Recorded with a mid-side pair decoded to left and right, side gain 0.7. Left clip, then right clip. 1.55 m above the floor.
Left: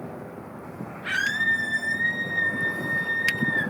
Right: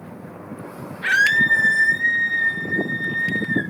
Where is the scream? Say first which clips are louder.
Right 8 dB; 60° right, 3 m; by 3.6 s 45° right, 5.5 m.